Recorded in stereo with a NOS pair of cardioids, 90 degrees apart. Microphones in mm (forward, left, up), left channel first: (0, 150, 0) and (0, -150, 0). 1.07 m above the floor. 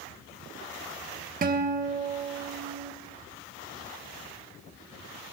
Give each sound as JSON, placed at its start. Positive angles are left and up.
{"t": 1.4, "sound": "a guitar", "azimuth_deg": -30, "distance_m": 1.0}